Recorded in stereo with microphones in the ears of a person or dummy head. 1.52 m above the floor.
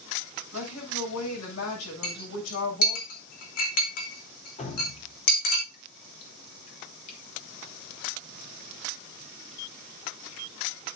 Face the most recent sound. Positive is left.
turn(degrees=40)  # may be behind; listen again after turning